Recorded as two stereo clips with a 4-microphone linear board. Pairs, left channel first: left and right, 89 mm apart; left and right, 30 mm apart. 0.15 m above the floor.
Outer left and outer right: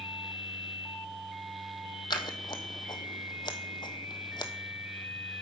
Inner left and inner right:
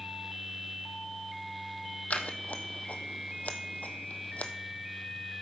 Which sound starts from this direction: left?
Scissors, at 2.1 s.